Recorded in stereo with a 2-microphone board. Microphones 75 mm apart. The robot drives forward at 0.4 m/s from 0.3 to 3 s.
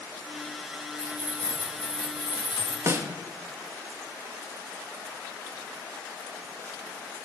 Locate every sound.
1.0 s keys jangling: 70° left (ahead or behind), 1.9 m; by 2.8 s 90° left, 1.8 m
2.9 s a snare drum: 40° right (ahead or behind), 0.6 m; by 3.1 s 35° right (ahead or behind), 0.6 m